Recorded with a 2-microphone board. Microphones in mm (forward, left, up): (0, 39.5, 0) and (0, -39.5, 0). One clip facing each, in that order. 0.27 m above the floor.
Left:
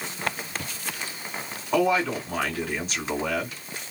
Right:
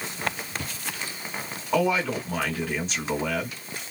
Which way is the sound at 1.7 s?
5° left (ahead or behind).